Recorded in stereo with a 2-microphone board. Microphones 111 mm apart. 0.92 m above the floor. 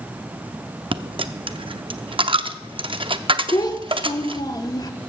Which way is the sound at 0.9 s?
50° right (ahead or behind).